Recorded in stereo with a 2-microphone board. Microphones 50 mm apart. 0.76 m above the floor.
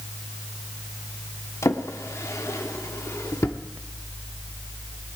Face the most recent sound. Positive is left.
turn(degrees=75)  # may be behind; listen again after turning